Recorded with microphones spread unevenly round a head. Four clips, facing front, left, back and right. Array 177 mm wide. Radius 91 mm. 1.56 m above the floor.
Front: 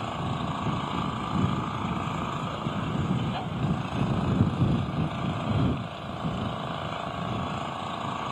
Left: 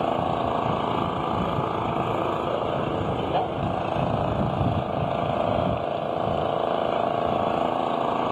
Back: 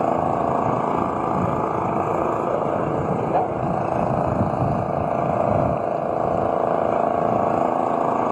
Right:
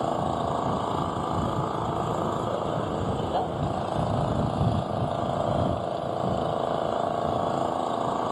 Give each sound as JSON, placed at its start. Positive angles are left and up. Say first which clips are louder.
{"t": 0.0, "sound": "an engine running", "louder": "left 3 dB, back 12 dB", "azimuth_deg": 170}